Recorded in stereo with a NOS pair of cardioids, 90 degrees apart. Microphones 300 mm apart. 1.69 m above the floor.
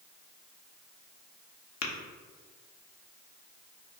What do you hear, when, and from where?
1.8 s tapping: 60° left, 0.9 m